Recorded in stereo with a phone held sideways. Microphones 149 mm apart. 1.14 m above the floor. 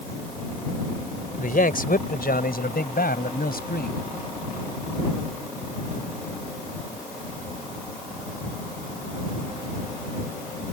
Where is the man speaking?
70° left (ahead or behind); by 4.0 s 85° left.